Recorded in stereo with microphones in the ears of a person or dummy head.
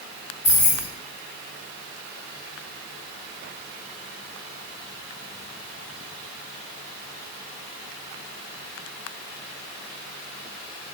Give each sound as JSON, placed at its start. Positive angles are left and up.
{"t": 0.4, "sound": "keys jangling", "side_deg": 15, "distance_m": 1.5}